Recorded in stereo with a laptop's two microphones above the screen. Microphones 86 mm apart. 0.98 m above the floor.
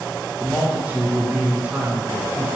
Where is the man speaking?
15° right (ahead or behind), 0.7 m.